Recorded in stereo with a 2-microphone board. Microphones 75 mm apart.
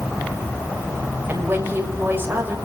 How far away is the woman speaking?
About 7 m.